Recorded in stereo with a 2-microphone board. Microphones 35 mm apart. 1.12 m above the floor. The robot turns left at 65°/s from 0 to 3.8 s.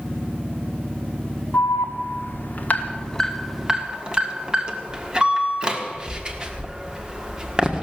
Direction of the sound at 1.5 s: 55° left (ahead or behind).